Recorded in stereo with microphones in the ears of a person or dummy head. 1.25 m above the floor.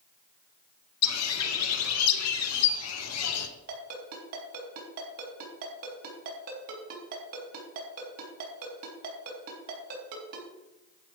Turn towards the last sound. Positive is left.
turn(degrees=-45)  # may be behind; listen again after turning